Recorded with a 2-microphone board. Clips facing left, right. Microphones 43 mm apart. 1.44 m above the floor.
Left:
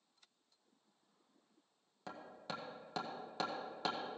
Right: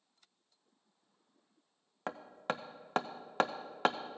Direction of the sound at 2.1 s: 55° right (ahead or behind).